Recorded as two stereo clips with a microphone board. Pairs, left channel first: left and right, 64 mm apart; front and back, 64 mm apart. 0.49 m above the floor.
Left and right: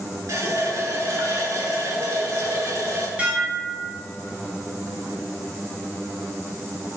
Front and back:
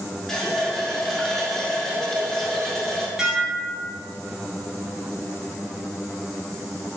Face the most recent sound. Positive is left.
turn(degrees=-115)